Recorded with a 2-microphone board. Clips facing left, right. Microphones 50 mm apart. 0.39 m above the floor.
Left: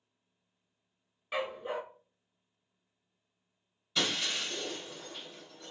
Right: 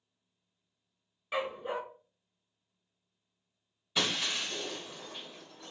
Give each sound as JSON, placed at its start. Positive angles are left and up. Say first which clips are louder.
{"t": 1.3, "sound": "a dog barking", "louder": "right 1 dB", "side_deg": -5, "distance_m": 0.6}
{"t": 4.0, "sound": "breaking glass", "louder": "even", "side_deg": -15, "distance_m": 2.5}